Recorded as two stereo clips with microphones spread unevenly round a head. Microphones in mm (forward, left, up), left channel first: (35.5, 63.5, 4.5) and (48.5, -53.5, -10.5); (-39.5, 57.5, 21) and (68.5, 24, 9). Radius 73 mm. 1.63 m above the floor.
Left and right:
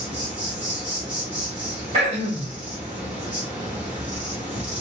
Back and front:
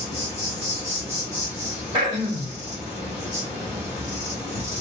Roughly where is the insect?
Behind.